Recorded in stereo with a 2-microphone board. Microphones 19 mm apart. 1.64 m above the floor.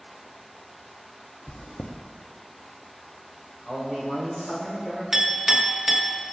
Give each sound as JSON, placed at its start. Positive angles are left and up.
{"t": 1.5, "sound": "chewing", "side_deg": 70, "distance_m": 0.6}
{"t": 3.6, "sound": "a man speaking", "side_deg": 45, "distance_m": 2.0}
{"t": 5.1, "sound": "a clink", "side_deg": -20, "distance_m": 1.1}